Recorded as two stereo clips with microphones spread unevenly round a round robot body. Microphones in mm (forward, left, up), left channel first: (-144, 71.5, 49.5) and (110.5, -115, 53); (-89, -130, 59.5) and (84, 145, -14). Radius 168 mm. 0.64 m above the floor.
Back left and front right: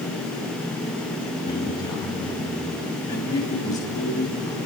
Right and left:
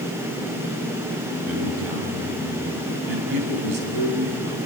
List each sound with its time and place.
1.4 s a man speaking: 65° left, 5.5 m